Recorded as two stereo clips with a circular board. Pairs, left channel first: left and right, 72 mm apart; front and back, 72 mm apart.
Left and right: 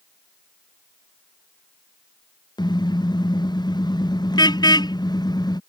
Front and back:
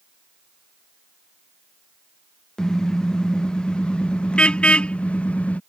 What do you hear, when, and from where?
2.6 s a car horn: 80° left; by 5.6 s 70° left